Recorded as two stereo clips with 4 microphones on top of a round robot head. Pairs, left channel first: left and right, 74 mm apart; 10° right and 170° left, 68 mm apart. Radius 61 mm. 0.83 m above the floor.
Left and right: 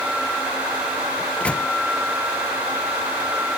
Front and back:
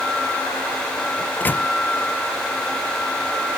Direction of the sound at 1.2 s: 30° left.